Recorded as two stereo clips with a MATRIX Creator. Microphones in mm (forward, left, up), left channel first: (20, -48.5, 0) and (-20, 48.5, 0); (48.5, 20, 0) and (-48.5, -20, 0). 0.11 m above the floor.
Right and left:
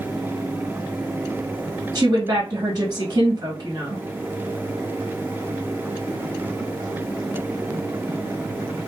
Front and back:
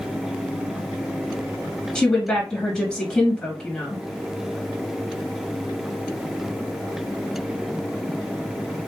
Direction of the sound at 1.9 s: 100° left.